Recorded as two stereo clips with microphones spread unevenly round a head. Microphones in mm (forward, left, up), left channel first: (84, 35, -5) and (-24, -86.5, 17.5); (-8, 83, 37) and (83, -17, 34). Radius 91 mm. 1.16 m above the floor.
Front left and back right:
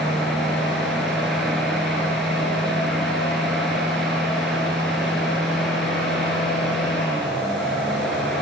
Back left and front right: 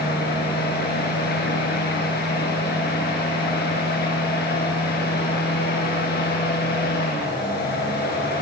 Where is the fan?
140° left, 7 m.